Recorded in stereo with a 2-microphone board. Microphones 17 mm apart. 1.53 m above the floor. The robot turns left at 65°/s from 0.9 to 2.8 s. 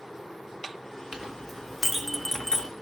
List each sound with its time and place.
1.1 s a clink: 45° right (ahead or behind), 1.7 m; by 2.7 s 45° left (ahead or behind), 1.7 m